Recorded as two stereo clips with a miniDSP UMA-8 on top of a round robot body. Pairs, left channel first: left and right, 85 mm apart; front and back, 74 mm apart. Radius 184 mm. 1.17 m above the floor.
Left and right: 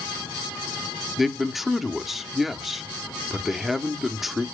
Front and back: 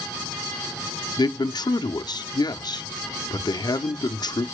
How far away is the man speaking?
About 1.0 m.